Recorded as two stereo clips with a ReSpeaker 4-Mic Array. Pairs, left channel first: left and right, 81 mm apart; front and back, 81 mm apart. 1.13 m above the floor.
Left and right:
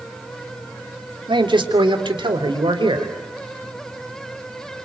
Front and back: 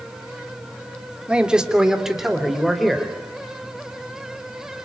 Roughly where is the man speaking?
Right.